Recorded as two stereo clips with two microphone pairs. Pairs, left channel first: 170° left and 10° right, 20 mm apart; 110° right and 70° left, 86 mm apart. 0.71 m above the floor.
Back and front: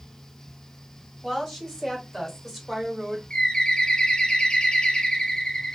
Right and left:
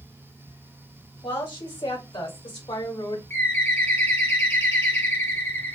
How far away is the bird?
About 0.9 m.